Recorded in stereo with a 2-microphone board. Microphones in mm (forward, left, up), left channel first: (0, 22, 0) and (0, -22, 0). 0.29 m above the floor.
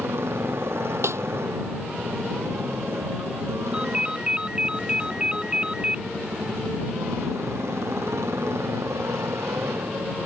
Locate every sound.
0.0 s a motorcycle: 65° right (ahead or behind); by 10.3 s 75° right (ahead or behind)
1.0 s a snare drum: 80° right
3.7 s a ringtone: 20° right (ahead or behind)